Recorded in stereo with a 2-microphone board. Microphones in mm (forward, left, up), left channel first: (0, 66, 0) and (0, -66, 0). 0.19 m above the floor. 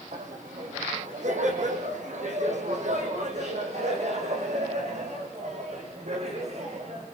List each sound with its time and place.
0.1 s laughter: 70° right (ahead or behind), 7 m; by 7.0 s 55° right (ahead or behind), 11.5 m